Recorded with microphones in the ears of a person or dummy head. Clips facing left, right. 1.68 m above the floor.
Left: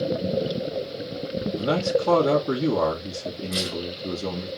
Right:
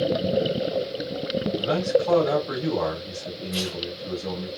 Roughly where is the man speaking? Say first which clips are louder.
Even; left.